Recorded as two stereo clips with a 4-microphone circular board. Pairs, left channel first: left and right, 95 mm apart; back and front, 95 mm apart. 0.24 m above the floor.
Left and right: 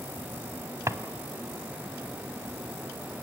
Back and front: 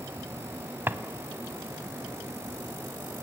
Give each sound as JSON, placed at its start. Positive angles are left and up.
{"t": 0.9, "sound": "a drawer", "azimuth_deg": -55, "distance_m": 0.9}